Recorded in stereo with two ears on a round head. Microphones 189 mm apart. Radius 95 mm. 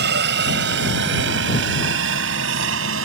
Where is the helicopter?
55° right (ahead or behind); by 3.0 s 70° right (ahead or behind).